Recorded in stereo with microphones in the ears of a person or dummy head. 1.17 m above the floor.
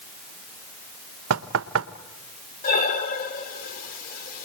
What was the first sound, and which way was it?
Knocking, 80° right.